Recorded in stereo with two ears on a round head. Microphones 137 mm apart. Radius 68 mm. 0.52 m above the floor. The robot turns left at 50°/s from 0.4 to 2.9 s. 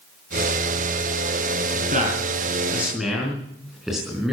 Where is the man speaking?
60° right (ahead or behind), 4.5 m; by 4.3 s 5° right (ahead or behind), 4.5 m.